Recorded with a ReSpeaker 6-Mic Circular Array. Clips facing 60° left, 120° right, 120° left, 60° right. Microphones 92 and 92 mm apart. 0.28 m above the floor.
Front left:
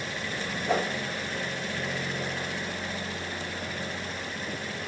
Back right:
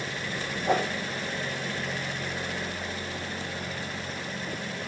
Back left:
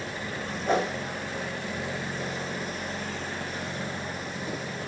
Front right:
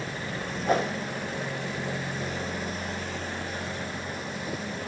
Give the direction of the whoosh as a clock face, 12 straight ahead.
5 o'clock.